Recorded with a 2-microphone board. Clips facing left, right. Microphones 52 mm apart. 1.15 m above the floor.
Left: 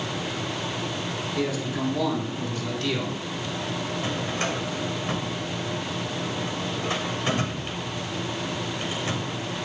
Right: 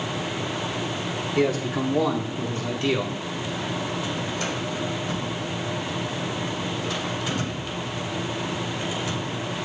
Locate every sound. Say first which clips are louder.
1.4 s a man speaking: right 5 dB; 50° right (ahead or behind), 3.5 m; by 3.2 s 25° right (ahead or behind), 3.5 m
4.0 s a drawer: even; 40° left (ahead or behind), 3 m